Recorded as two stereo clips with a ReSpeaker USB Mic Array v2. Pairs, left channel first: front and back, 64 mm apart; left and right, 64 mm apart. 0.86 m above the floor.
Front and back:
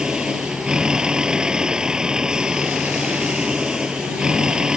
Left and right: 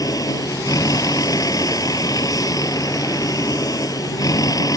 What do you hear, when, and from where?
0.0 s a vehicle: 105° left